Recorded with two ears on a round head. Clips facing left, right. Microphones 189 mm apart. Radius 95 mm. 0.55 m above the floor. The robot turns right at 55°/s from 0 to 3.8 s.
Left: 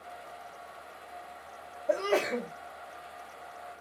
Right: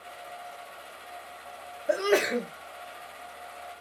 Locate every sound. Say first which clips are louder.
1.9 s a sneeze: right 3 dB; 15° right (ahead or behind), 0.8 m; by 2.5 s 25° right (ahead or behind), 0.8 m